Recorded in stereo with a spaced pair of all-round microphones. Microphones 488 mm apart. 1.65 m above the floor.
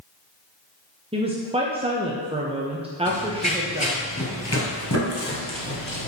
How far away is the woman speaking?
About 0.6 m.